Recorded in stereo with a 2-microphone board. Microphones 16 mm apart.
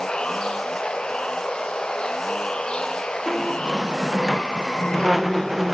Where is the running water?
80° left, 1.0 m.